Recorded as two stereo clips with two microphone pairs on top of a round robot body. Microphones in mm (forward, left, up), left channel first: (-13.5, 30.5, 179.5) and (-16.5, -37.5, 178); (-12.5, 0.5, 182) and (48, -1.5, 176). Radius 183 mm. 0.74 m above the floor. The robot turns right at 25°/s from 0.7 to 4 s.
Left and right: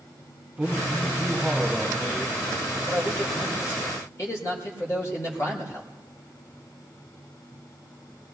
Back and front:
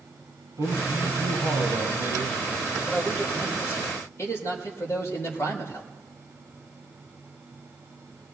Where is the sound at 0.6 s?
25° right, 6.5 m; by 2.4 s 20° left, 6.5 m.